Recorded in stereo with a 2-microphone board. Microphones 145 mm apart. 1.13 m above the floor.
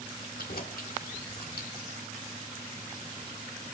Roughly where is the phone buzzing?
No phone buzzing in this recording.